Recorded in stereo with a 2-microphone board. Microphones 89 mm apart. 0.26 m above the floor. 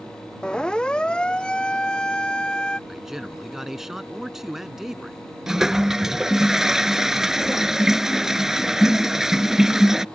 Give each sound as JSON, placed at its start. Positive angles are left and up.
{"t": 0.4, "sound": "a siren", "side_deg": 10}
{"t": 2.9, "sound": "a man speaking", "side_deg": -5}
{"t": 5.5, "sound": "a toilet flushing", "side_deg": -5}